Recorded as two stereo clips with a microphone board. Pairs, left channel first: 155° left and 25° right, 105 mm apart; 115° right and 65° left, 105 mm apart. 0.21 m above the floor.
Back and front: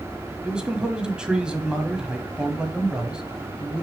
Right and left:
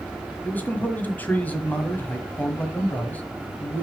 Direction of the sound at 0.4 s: 85° right.